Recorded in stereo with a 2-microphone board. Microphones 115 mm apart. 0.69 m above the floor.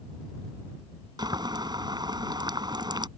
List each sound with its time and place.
1.2 s boiling: 40° right (ahead or behind)